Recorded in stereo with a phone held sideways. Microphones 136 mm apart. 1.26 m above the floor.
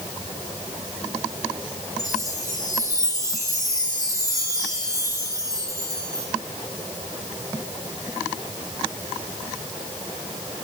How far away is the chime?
About 3 m.